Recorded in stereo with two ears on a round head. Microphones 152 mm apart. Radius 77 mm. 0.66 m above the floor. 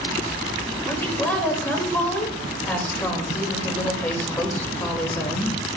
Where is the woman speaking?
10° left (ahead or behind), 2.5 m.